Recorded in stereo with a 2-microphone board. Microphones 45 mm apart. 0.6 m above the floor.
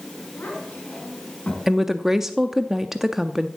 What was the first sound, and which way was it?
A child speaking, 40° left (ahead or behind).